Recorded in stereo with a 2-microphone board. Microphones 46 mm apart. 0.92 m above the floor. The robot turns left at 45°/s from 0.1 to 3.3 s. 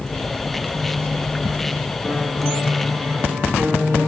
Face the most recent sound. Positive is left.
turn(degrees=-55)